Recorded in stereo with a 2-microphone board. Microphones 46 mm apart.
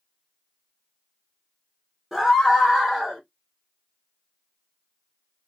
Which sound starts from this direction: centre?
A scream, at 2.1 s.